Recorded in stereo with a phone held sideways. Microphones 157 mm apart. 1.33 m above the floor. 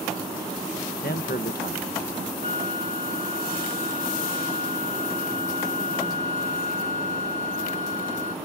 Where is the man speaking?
75° left (ahead or behind).